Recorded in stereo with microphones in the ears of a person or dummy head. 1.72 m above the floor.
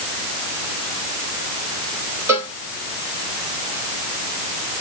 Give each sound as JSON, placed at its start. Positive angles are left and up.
{"t": 2.3, "sound": "a cowbell", "side_deg": -10, "distance_m": 3.0}